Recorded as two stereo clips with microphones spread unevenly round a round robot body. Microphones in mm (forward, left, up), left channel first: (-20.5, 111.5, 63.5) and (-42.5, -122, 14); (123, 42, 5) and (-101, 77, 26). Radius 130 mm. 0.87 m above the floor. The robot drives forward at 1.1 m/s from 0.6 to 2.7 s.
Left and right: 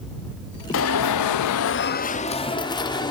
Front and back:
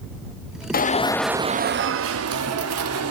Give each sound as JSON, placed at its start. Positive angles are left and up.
{"t": 0.7, "sound": "an alarm", "azimuth_deg": 40, "distance_m": 0.9}